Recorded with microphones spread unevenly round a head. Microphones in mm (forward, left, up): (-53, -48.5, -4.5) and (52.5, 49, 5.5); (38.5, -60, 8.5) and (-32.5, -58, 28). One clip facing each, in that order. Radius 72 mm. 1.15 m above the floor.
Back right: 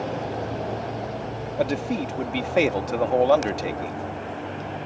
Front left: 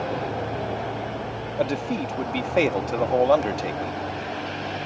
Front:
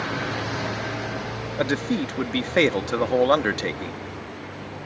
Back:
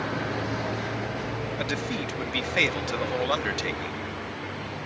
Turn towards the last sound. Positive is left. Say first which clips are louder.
# even, front 10 dB
turn(degrees=-50)